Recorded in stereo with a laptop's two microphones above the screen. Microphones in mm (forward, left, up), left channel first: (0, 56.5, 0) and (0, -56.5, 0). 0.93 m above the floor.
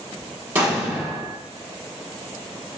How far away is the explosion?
About 1.0 m.